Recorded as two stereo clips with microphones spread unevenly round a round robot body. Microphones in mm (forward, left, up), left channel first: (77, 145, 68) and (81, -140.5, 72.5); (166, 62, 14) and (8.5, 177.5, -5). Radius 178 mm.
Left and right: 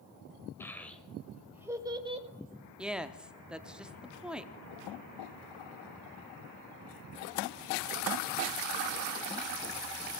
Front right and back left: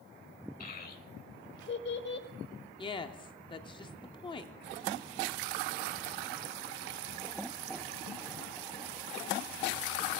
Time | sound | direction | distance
0.6 | a child speaking | 10° left | 1.8 m
2.8 | a woman speaking | 5° right | 0.7 m